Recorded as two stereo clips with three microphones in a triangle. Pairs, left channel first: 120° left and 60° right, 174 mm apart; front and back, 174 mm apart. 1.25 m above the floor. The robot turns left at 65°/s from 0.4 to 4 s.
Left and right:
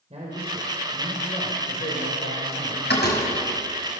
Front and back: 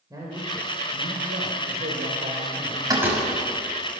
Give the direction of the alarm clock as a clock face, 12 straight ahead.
No alarm clock in this recording.